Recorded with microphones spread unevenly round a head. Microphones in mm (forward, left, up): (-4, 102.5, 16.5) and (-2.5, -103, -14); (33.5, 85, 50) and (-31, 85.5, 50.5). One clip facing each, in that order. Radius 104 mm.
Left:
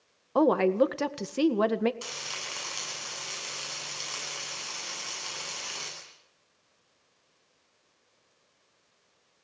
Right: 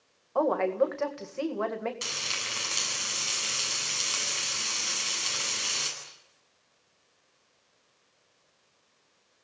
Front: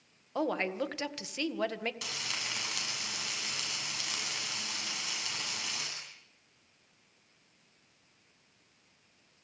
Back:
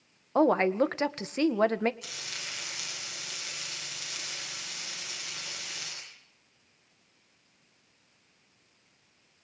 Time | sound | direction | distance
0.3 | a woman speaking | 130° left | 1.8 m
2.0 | frying | 25° right | 9.5 m